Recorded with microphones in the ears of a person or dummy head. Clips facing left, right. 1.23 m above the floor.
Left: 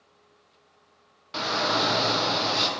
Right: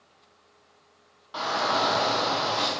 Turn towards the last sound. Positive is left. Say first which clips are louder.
# even
turn(degrees=35)  # may be behind; listen again after turning